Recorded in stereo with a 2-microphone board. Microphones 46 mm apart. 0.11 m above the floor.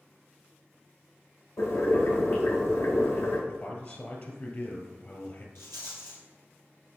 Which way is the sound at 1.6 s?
80° left.